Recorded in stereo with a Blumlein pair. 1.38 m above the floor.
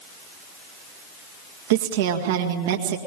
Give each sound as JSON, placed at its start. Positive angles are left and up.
{"t": 1.7, "sound": "a woman speaking", "azimuth_deg": -55, "distance_m": 1.8}